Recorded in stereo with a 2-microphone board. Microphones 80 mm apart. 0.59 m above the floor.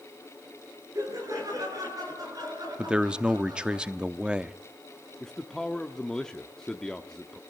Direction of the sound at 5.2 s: 10° left (ahead or behind).